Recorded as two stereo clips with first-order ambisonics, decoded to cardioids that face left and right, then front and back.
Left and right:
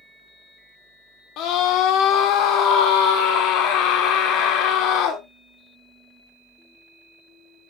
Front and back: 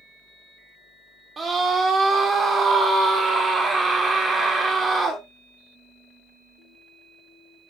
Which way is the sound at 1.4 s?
110° left.